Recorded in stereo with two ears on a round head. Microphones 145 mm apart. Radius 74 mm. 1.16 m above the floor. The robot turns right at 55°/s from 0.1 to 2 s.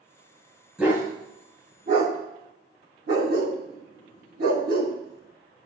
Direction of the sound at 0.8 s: 5° right (ahead or behind).